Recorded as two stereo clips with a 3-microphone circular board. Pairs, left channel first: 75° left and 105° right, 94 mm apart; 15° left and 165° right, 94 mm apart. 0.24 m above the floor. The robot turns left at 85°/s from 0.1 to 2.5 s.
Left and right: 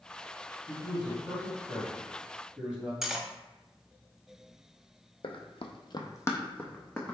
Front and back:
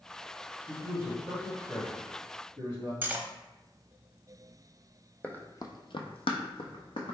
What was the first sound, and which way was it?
A man speaking, 115° left.